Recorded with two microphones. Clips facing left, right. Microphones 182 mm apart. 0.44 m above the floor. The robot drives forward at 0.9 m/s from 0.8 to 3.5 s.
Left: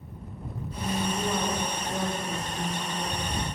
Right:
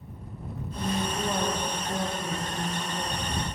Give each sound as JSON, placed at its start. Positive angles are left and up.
{"t": 0.8, "sound": "a woman speaking", "side_deg": -15, "distance_m": 1.6}